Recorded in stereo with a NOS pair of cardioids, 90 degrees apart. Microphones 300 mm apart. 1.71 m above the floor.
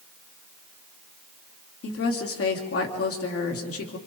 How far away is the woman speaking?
About 4 m.